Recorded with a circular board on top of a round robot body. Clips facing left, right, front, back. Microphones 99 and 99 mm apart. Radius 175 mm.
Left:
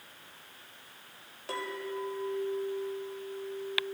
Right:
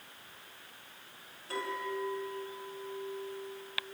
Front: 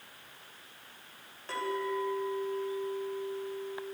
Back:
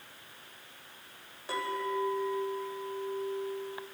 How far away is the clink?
About 3.5 m.